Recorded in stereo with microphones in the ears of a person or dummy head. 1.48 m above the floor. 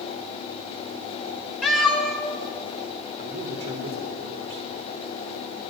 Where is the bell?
I don't hear a bell.